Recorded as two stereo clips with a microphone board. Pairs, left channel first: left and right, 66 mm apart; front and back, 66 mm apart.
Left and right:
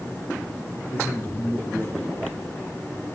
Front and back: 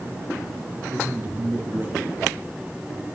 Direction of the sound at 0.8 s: 140° left.